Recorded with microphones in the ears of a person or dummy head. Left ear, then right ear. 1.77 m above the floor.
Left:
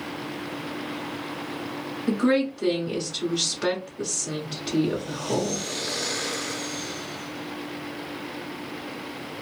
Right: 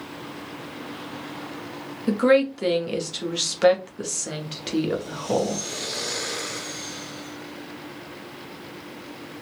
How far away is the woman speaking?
About 0.7 m.